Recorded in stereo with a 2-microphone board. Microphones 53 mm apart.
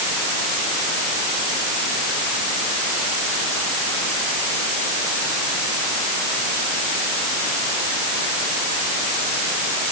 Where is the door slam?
I don't hear a door slam.